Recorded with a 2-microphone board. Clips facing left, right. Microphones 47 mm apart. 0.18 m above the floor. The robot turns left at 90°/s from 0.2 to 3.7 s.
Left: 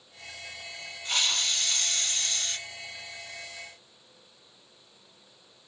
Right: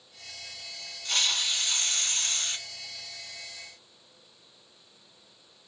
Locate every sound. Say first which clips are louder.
1.1 s a hiss: even; 25° left, 1.5 m; by 2.6 s 110° right, 1.5 m